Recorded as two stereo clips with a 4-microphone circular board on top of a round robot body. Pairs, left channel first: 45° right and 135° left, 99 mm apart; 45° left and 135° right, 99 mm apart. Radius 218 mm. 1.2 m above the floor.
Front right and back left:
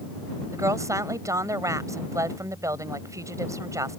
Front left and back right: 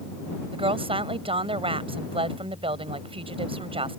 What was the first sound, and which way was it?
A woman speaking, 165° right.